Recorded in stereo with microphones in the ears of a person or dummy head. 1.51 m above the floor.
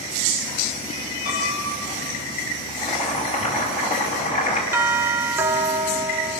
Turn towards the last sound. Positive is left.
turn(degrees=-15)  # may be behind; listen again after turning